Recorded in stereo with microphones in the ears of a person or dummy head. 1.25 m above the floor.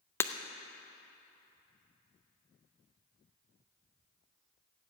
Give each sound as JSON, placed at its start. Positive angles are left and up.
{"t": 0.2, "sound": "breaking glass", "side_deg": 10, "distance_m": 0.6}